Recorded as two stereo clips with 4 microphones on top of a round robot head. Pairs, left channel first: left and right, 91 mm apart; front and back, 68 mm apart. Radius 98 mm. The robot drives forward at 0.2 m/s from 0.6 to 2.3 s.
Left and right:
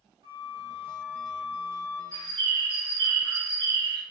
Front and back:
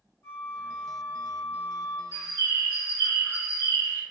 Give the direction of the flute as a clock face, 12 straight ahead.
2 o'clock.